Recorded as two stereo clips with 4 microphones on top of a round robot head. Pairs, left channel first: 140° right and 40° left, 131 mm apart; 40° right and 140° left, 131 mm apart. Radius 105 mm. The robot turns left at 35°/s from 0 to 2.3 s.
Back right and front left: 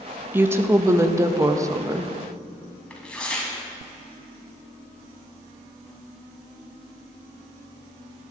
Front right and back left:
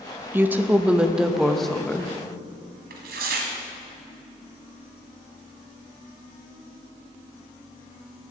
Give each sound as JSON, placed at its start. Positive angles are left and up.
{"t": 0.3, "sound": "a woman speaking", "azimuth_deg": 90, "distance_m": 0.7}
{"t": 2.9, "sound": "tearing paper", "azimuth_deg": 140, "distance_m": 1.1}